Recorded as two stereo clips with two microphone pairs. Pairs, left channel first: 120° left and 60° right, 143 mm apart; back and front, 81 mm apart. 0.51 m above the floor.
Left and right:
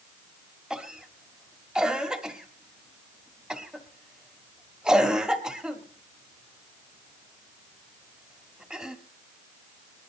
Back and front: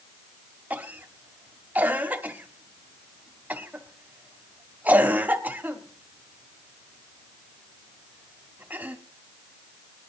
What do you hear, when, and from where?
0.7 s a cough: 20° left, 1.4 m